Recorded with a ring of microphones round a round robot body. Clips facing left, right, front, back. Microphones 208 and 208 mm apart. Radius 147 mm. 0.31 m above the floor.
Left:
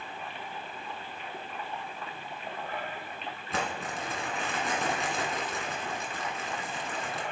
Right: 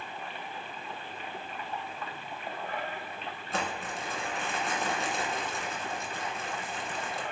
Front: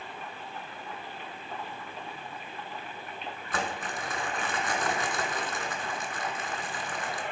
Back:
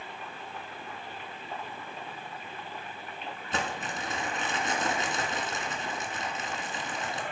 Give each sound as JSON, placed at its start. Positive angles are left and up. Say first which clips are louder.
{"t": 3.5, "sound": "crumpling", "louder": "left 1 dB, even", "azimuth_deg": 110, "distance_m": 1.6}